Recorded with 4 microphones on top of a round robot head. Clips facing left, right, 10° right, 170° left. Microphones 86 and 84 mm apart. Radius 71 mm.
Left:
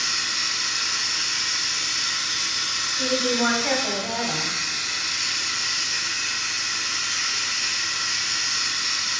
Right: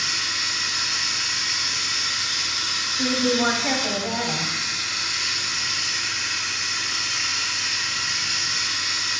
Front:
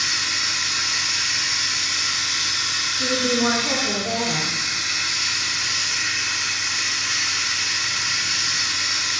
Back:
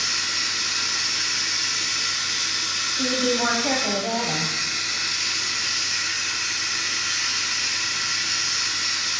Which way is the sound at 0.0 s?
35° right.